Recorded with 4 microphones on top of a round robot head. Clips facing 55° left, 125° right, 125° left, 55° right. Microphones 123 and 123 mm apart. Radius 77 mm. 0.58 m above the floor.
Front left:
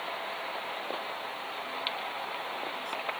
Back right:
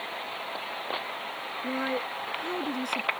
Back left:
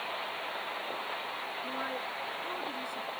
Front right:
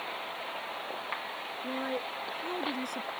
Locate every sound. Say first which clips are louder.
1.6 s a woman speaking: back right 11 dB, front right 5 dB; 115° right; by 3.1 s 105° right